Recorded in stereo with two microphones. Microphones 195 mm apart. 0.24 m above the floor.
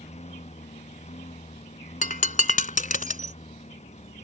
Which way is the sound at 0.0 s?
35° left (ahead or behind).